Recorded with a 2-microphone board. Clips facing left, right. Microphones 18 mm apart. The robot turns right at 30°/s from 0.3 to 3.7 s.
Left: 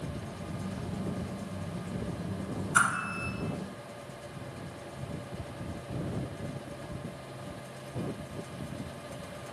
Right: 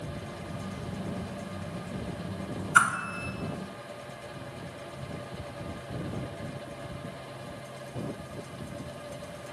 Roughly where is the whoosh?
Right.